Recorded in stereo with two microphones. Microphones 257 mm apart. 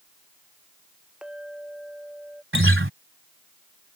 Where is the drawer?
No drawer in this recording.